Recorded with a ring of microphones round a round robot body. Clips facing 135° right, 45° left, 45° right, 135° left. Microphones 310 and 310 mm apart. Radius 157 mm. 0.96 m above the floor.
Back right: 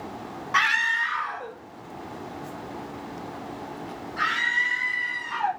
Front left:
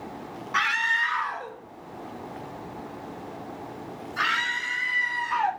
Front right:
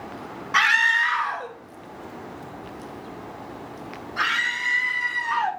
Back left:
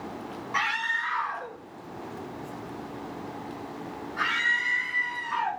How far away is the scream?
About 0.8 m.